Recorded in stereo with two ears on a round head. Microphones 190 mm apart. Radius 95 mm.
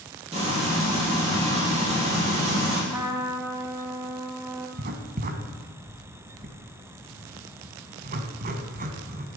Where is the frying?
30° right (ahead or behind), 5 m.